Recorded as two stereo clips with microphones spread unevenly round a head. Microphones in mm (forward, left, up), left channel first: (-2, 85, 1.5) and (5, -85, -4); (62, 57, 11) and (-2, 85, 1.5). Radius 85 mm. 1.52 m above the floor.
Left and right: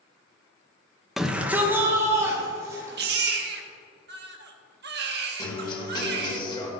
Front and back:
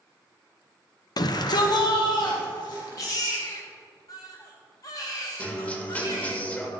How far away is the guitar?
About 1.8 m.